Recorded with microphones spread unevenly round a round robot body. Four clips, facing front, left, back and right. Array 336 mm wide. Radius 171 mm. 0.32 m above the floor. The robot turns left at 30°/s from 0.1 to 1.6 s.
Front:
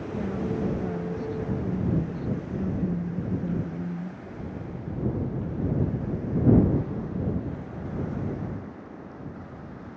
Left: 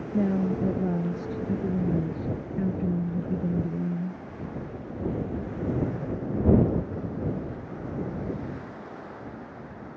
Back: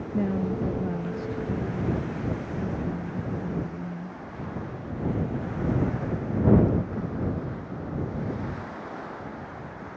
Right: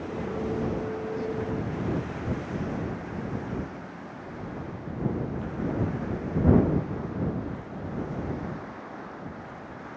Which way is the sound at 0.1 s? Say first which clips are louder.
Left 6 dB, back 3 dB; 120° left.